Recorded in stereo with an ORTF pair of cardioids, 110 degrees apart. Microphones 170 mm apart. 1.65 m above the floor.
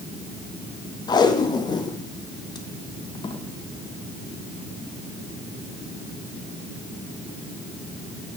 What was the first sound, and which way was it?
Tape being pulled, 25° left.